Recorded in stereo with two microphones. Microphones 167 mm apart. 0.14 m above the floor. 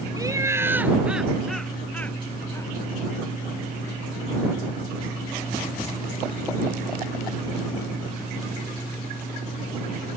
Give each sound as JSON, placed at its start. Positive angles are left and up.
{"t": 0.2, "sound": "laughter", "side_deg": -25}